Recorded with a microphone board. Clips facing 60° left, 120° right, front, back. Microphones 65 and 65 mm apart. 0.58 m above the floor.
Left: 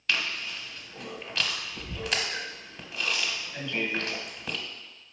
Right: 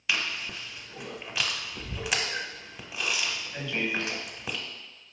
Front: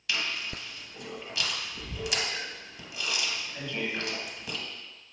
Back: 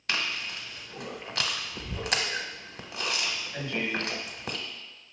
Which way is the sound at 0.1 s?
160° left.